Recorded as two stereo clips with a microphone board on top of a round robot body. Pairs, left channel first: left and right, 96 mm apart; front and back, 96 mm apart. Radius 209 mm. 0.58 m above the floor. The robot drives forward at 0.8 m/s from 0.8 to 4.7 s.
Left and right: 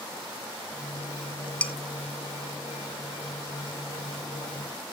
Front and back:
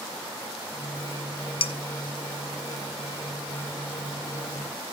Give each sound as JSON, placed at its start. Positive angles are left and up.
{"t": 1.6, "sound": "dishes clattering", "azimuth_deg": 15, "distance_m": 1.2}